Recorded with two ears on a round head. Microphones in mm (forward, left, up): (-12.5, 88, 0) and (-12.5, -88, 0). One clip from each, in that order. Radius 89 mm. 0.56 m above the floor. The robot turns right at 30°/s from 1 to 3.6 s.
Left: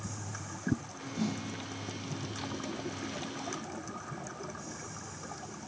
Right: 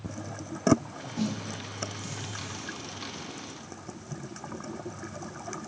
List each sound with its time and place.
1.2 s a snare drum: 35° right (ahead or behind), 0.8 m; by 1.4 s 25° right (ahead or behind), 0.8 m